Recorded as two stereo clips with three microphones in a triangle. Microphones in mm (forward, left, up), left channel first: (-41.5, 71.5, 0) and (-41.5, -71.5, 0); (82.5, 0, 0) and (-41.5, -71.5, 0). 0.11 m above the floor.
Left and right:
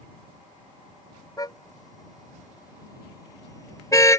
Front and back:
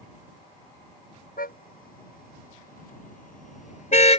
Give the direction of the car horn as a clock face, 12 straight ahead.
11 o'clock.